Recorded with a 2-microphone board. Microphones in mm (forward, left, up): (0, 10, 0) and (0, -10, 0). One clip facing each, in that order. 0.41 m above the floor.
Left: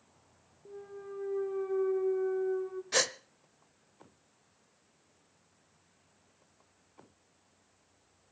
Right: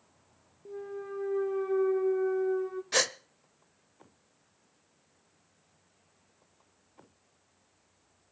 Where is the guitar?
No guitar in this recording.